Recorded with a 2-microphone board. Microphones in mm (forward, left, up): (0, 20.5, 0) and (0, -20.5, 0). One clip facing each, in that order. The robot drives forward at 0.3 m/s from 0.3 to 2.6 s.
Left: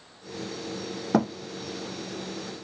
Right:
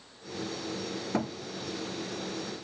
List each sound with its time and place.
1.1 s a thud: 60° left (ahead or behind), 1.1 m; by 1.3 s 65° left (ahead or behind), 1.1 m